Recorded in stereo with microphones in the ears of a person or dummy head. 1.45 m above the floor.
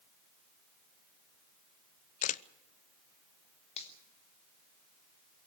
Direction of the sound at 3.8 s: 35° left (ahead or behind).